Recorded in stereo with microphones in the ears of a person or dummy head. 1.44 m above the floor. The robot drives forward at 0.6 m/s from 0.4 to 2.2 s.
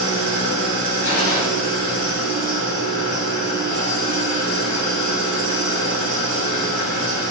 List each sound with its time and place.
0.0 s an engine running: 80° right, 0.8 m; by 7.3 s 40° right (ahead or behind), 1.2 m
1.0 s a gunshot: 45° left (ahead or behind), 1.2 m; by 1.4 s 55° left (ahead or behind), 1.0 m